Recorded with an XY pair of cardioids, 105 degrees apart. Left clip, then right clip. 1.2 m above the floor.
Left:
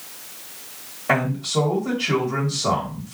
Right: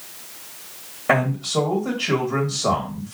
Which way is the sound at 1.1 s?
35° right.